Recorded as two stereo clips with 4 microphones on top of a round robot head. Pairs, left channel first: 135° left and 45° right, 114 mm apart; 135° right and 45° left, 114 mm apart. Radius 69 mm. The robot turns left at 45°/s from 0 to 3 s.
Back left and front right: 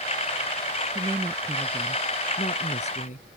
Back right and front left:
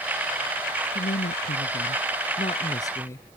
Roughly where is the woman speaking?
Right.